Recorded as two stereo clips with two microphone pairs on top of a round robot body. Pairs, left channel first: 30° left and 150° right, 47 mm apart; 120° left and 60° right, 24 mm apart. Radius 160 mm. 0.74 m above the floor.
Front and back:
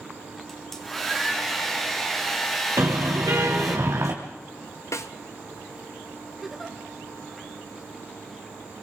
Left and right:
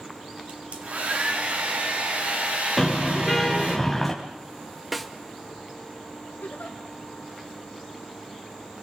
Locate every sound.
0.5 s a hair dryer: 55° right, 3 m
2.8 s a car horn: 150° right, 2.5 m
4.9 s a snare drum: 25° left, 0.9 m
6.4 s a giggle: 120° left, 1.7 m